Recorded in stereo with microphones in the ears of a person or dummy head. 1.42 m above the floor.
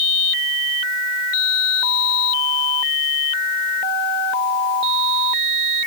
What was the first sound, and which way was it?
Only background noise.